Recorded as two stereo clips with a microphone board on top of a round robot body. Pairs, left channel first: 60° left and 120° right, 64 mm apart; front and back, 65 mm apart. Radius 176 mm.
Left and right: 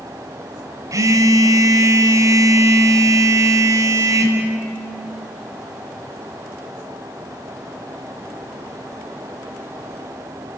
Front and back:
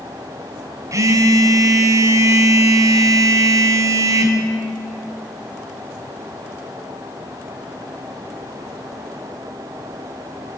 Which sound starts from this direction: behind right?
A phone buzzing, at 0.9 s.